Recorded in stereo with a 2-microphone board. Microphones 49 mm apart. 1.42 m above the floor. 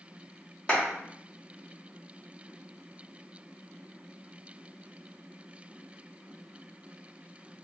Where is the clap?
20° left (ahead or behind), 1.2 m.